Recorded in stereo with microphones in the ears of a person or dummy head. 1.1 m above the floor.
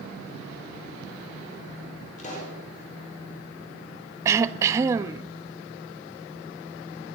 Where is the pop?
40° left (ahead or behind), 5.5 m.